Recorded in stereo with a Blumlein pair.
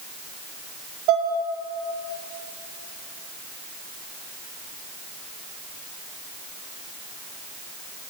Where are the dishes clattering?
40° right, 1.9 m.